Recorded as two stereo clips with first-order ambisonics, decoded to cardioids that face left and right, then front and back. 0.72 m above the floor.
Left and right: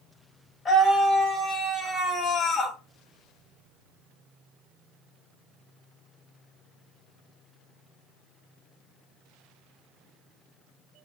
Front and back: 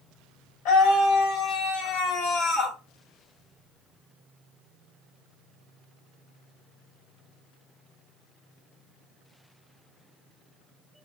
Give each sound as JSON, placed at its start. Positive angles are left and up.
{"t": 0.7, "sound": "a scream", "azimuth_deg": 10, "distance_m": 1.4}